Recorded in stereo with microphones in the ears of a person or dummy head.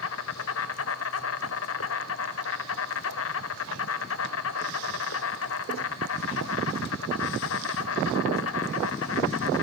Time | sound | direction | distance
0.0 | an insect | 70° left (ahead or behind) | 2.5 m